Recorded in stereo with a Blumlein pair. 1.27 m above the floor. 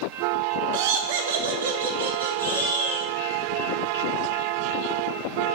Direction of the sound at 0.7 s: 50° right.